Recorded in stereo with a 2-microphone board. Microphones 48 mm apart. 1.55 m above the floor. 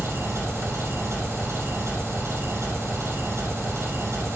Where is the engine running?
80° right, 4 m.